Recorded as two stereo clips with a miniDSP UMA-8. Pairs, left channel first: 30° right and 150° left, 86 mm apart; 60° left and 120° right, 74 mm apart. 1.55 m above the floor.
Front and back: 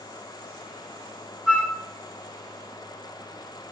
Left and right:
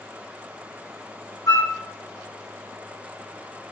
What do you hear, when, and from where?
1.5 s a flute: 80° left, 1.5 m